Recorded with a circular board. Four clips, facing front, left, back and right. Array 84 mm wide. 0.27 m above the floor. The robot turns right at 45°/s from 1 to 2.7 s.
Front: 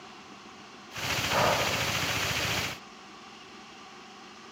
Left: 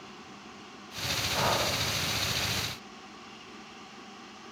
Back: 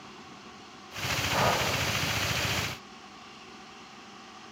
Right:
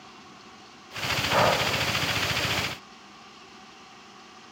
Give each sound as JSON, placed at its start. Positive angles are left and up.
{"t": 1.3, "sound": "breathing", "azimuth_deg": -85, "distance_m": 6.5}